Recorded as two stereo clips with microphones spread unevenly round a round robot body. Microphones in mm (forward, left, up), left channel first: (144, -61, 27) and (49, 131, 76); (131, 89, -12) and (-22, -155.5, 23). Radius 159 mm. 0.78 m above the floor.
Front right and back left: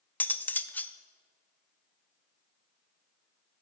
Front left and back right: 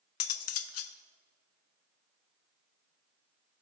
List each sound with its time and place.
0.2 s cutlery clinking: 15° left, 0.7 m